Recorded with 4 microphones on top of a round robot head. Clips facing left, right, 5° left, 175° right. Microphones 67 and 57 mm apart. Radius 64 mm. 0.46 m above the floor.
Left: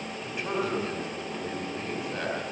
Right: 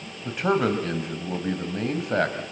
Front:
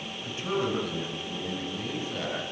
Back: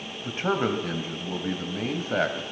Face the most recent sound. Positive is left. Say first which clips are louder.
# right 8 dB, back 4 dB
turn(degrees=-125)